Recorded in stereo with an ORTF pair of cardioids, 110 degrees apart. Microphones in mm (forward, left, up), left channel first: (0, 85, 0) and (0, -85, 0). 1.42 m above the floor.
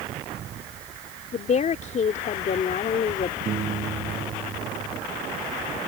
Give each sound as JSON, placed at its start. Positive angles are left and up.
{"t": 1.3, "sound": "a woman speaking", "azimuth_deg": 45}
{"t": 3.5, "sound": "a piano", "azimuth_deg": -50}